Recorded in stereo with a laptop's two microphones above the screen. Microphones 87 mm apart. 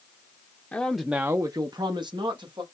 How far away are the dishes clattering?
I don't hear dishes clattering.